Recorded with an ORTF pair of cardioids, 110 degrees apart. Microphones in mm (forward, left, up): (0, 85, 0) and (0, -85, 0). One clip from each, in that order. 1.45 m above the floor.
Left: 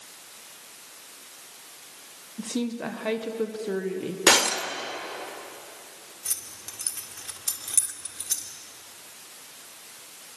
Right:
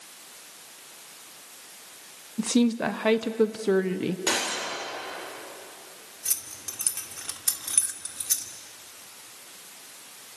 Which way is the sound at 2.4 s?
35° right.